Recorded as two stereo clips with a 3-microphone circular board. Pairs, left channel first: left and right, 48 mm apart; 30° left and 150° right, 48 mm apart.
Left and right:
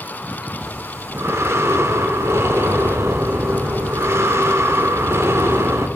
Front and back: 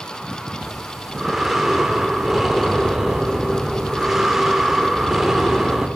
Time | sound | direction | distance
0.6 | breathing | 65° right | 0.7 m